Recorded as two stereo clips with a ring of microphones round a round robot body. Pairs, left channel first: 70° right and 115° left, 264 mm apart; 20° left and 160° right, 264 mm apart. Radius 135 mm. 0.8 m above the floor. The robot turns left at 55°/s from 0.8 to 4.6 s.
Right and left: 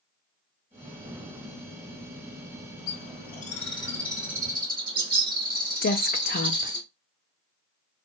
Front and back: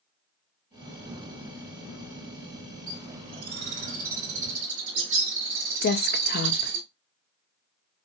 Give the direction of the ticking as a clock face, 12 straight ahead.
No ticking in this recording.